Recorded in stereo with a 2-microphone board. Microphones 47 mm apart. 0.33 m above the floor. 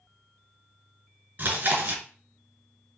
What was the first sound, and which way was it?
Chewing, 50° right (ahead or behind).